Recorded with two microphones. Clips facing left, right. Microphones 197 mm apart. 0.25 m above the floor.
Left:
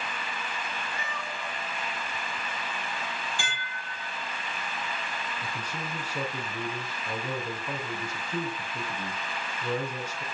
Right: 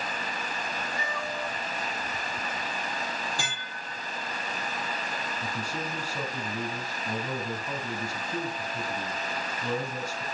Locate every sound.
0.9 s a cat meowing: 15° right (ahead or behind), 5.5 m
3.4 s dishes clattering: 40° right (ahead or behind), 4.5 m
5.4 s a man speaking: 5° right (ahead or behind), 6 m